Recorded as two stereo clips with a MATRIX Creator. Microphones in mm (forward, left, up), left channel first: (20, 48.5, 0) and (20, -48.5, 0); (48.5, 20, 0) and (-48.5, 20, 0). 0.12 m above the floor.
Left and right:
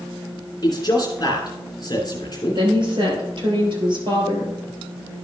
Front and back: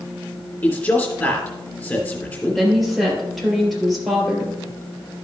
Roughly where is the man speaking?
Ahead left.